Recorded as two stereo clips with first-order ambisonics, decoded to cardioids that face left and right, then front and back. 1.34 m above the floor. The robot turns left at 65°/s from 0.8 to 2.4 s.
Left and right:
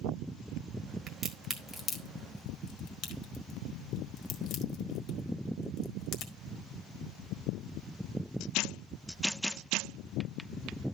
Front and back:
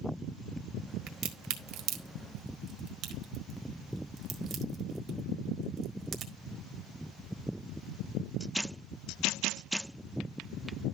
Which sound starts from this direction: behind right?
A crack, at 1.1 s.